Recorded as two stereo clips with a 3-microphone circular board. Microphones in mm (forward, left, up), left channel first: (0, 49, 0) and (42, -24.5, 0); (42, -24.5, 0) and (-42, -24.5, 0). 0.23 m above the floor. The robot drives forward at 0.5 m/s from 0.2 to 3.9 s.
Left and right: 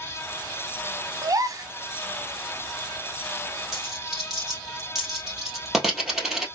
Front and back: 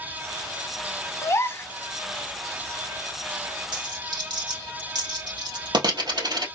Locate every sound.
1.2 s a gasp: 40° right, 0.9 m; by 1.7 s 55° right, 0.8 m
3.7 s a dropped coin: 145° right, 2.5 m